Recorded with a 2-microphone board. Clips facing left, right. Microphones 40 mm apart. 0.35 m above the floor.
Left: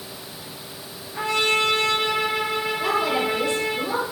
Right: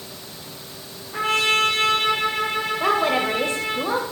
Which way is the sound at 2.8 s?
40° right (ahead or behind).